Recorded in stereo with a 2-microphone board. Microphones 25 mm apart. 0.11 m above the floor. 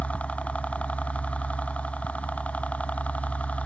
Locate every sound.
0.0 s a helicopter: 55° left (ahead or behind); by 3.6 s 60° left (ahead or behind)